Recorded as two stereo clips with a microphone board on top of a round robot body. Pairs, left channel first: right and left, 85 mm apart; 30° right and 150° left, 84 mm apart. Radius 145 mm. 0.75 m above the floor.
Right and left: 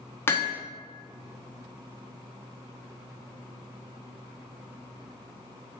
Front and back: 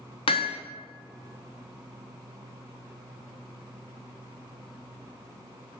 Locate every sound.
0.3 s hammering: 25° right, 0.9 m